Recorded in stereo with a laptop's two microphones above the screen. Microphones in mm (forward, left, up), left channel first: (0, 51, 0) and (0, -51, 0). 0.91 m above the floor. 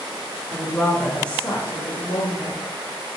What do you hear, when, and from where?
0.5 s a woman speaking: 15° right (ahead or behind), 2 m; by 2.6 s 65° left (ahead or behind), 2 m